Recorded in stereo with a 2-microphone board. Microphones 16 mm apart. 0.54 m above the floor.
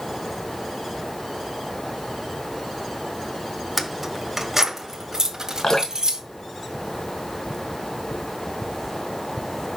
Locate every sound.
3.8 s keys jangling: 5° right (ahead or behind), 1.4 m; by 6.2 s 50° right (ahead or behind), 2 m
5.6 s dripping: 35° left (ahead or behind), 3 m